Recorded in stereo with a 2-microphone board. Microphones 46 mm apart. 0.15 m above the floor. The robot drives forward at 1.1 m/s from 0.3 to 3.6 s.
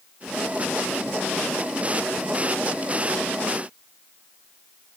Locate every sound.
Only background noise.